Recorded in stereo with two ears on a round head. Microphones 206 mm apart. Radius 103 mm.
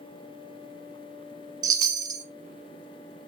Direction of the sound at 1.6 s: 15° right (ahead or behind).